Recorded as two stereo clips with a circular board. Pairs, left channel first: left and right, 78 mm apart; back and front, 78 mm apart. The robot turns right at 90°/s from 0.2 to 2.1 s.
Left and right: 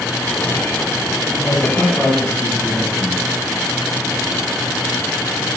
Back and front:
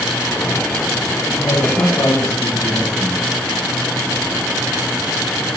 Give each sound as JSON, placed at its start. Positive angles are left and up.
{"t": 1.3, "sound": "a man speaking", "azimuth_deg": 125, "distance_m": 3.0}